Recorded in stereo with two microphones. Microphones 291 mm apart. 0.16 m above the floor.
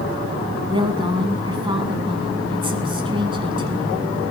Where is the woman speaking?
20° right (ahead or behind), 1.2 m.